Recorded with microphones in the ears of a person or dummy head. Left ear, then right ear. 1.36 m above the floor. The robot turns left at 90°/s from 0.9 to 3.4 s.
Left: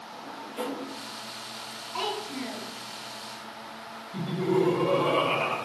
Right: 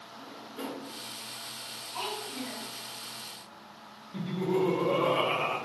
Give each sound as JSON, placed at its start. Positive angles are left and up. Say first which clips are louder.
{"t": 0.1, "sound": "a drawer", "louder": "left 7 dB", "side_deg": 40, "distance_m": 1.0}
{"t": 1.9, "sound": "a child speaking", "louder": "left 5 dB", "azimuth_deg": 60, "distance_m": 2.0}
{"t": 4.1, "sound": "laughter", "louder": "left 4 dB", "side_deg": -5, "distance_m": 1.3}